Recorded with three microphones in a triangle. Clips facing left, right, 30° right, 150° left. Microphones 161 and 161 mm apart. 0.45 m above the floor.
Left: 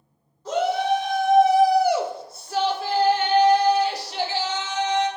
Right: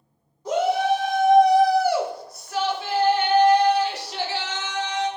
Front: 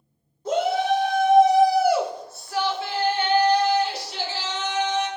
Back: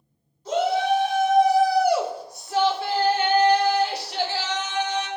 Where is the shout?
15° right, 1.1 m; by 5.1 s 135° left, 2.0 m.